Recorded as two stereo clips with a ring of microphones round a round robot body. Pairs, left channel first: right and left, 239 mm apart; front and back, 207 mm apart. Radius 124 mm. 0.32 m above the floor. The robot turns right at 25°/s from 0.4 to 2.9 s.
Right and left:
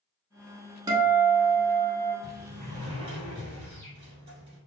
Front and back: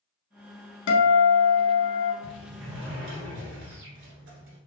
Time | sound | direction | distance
0.9 | a guitar | 15° left | 0.8 m
2.2 | a sliding door | 140° left | 1.3 m